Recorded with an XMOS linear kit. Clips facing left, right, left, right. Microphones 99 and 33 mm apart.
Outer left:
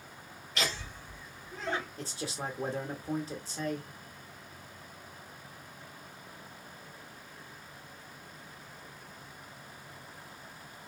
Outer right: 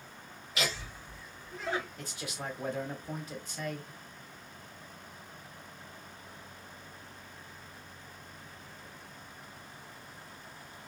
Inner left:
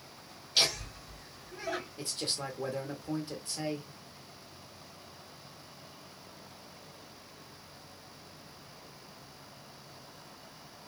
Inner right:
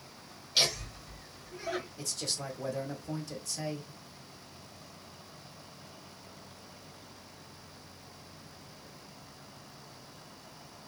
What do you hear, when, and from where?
0.6 s laughter: 5° right (ahead or behind), 1.8 m
2.0 s a man speaking: 35° left (ahead or behind), 1.1 m